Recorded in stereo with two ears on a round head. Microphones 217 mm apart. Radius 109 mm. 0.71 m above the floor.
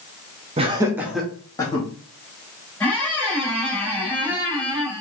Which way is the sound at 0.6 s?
25° right (ahead or behind).